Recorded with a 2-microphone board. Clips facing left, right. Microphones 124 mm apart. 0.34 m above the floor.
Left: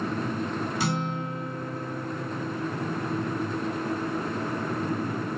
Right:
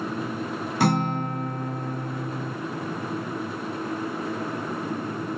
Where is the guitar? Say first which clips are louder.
Right 6 dB; 55° right (ahead or behind), 1.1 m.